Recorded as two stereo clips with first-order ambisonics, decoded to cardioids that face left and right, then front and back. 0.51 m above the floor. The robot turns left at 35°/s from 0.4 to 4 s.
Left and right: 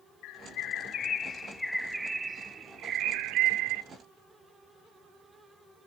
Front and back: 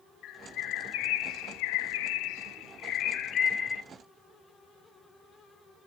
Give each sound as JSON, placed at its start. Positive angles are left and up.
{"t": 0.2, "sound": "a bird", "azimuth_deg": 50, "distance_m": 0.7}